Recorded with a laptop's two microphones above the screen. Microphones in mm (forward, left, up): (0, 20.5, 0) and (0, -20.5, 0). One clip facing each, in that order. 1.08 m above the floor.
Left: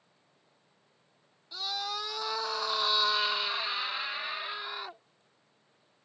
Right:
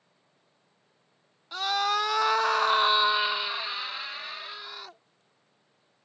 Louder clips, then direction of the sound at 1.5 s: Right 9 dB; 65° right (ahead or behind).